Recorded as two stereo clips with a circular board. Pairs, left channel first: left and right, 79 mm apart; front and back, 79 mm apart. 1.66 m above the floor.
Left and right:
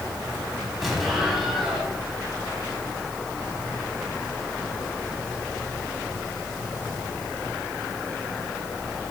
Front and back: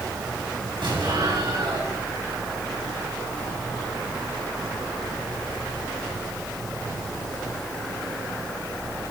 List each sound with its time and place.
0.8 s an explosion: 175° right, 4.5 m